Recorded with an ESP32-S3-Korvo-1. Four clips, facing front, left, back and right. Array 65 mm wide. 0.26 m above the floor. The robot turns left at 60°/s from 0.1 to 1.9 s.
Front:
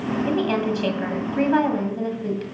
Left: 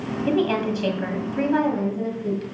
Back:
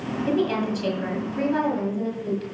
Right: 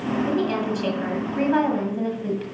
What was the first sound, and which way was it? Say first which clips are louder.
A woman speaking: left 6 dB, back 1 dB; 55° left.